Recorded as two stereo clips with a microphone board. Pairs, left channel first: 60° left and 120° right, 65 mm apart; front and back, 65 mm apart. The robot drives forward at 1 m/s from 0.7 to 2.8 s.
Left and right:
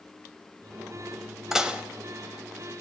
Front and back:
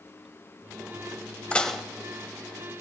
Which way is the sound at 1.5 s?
40° right.